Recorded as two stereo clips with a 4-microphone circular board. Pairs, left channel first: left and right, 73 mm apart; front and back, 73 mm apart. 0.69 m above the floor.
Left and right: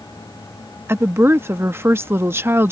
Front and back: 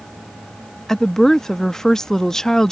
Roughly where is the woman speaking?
Right.